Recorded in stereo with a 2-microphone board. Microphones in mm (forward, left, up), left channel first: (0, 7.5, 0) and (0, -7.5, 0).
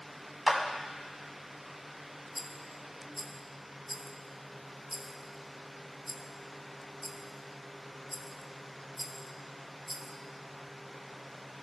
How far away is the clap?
About 1.1 m.